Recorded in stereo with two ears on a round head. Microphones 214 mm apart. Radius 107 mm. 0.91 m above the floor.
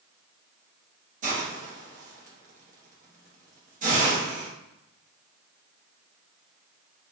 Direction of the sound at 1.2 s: 35° right (ahead or behind).